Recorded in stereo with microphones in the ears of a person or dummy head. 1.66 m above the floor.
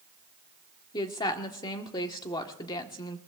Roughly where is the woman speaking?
Left.